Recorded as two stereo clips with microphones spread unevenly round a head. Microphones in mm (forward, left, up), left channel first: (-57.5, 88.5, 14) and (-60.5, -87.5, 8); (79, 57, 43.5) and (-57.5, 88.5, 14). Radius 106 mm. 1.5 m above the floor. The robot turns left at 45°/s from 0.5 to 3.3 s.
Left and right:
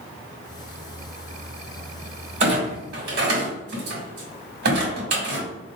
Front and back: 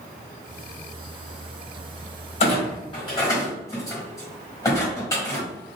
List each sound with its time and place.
2.4 s a clunk: 35° right, 1.3 m; by 5.5 s 75° right, 1.3 m